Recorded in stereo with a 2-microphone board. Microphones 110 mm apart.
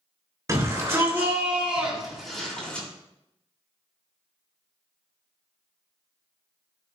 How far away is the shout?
About 2.5 m.